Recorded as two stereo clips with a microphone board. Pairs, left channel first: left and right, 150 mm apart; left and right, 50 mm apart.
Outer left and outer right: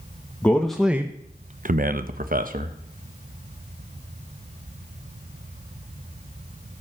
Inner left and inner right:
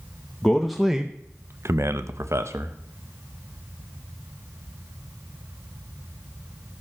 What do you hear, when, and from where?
0.4 s a man speaking: 10° left (ahead or behind), 1.3 m; by 2.8 s 65° right (ahead or behind), 1.7 m